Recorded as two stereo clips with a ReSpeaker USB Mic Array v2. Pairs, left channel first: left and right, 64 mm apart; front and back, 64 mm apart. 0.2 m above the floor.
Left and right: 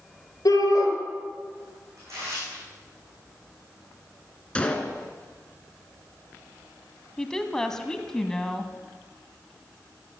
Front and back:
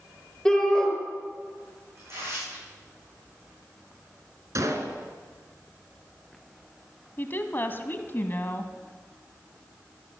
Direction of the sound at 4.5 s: 160° left.